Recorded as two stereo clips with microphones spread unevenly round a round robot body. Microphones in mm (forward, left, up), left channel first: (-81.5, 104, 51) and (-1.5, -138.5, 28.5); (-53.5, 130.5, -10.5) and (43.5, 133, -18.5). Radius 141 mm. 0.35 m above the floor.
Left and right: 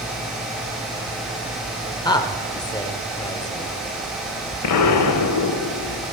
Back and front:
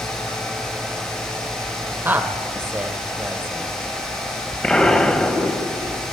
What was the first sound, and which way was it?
A woman speaking, 40° left.